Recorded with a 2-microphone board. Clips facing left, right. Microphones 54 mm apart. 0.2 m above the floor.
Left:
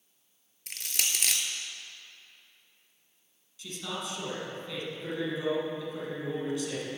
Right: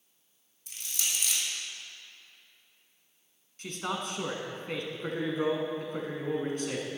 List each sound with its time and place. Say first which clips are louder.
0.7 s crushing: left 3 dB; 75° left (ahead or behind), 1.0 m
3.6 s a man speaking: right 3 dB; 50° right (ahead or behind), 1.5 m
4.9 s a man speaking: right 2 dB; 45° right (ahead or behind), 1.9 m